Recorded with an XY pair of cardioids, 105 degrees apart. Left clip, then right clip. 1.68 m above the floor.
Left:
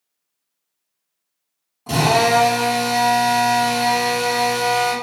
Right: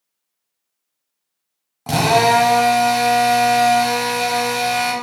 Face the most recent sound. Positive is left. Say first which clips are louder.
# right 2 dB
turn(degrees=-65)